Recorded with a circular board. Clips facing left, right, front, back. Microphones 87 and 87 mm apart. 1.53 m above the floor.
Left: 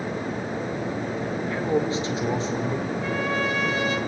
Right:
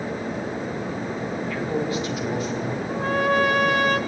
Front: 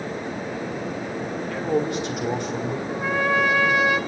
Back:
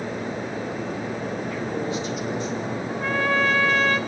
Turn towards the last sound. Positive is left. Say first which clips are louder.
# right 4 dB, front 1 dB
turn(degrees=-75)